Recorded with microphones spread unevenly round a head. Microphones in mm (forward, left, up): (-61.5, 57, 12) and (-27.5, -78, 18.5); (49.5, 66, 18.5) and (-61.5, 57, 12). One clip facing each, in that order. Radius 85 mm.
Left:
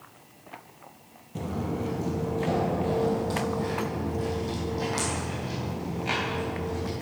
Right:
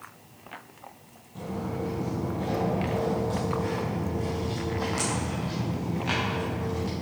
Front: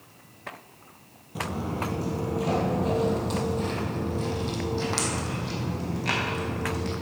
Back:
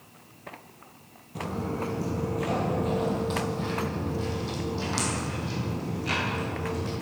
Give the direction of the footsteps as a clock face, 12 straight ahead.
9 o'clock.